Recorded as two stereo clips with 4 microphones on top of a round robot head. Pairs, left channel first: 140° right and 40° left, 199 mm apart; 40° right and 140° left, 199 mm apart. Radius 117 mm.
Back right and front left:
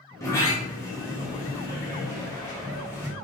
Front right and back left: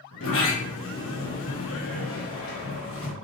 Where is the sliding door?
60° right, 2 m.